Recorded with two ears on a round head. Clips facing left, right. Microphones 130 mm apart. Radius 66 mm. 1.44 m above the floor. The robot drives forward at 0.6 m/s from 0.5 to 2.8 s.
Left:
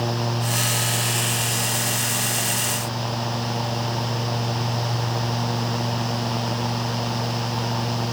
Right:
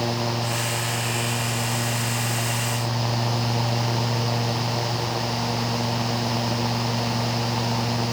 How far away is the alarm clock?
No alarm clock in this recording.